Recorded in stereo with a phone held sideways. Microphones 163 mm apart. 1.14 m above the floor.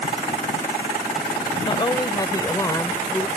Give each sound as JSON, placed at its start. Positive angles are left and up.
{"t": 1.6, "sound": "a woman speaking", "side_deg": 25}